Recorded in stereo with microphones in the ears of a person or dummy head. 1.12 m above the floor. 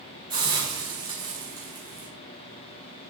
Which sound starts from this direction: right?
A hiss, at 0.3 s.